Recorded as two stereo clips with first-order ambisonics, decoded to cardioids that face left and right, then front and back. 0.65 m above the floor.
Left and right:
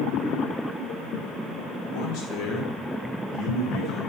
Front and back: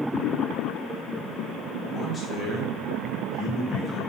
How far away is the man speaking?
About 1.4 m.